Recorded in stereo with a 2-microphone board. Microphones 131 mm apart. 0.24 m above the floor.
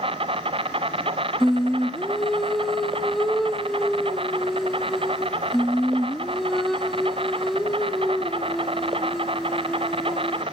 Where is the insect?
45° right (ahead or behind), 0.8 m.